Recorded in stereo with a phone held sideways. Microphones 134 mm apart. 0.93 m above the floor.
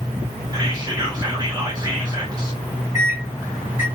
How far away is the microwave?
About 1.5 m.